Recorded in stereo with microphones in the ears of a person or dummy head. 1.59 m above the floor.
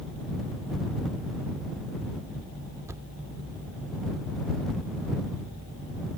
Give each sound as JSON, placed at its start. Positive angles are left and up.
{"t": 2.9, "sound": "a thud", "side_deg": -15}